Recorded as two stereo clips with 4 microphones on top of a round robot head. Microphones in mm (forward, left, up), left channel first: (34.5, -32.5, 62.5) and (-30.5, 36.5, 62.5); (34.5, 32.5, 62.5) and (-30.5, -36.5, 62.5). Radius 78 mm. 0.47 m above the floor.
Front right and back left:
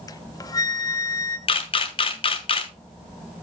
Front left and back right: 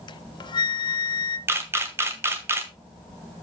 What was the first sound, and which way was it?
A flute, 5° left.